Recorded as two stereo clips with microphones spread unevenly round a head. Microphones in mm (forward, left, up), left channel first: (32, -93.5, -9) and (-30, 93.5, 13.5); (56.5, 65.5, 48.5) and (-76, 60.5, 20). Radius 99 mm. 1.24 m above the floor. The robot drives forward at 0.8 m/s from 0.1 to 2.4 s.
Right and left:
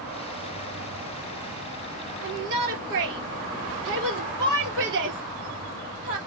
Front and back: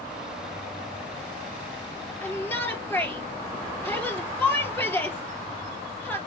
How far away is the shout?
About 4 m.